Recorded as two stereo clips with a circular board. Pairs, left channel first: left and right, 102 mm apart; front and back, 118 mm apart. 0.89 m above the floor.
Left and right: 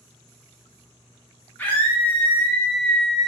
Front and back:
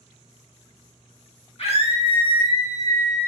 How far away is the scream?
About 1.5 m.